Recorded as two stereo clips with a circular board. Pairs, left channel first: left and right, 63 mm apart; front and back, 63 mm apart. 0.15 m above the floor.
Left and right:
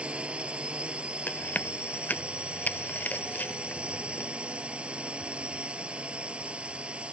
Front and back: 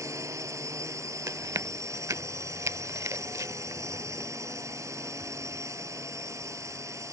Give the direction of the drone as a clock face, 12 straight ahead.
5 o'clock.